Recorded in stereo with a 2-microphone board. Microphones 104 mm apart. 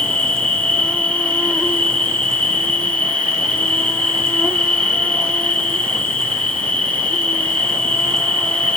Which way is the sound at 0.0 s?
10° left (ahead or behind).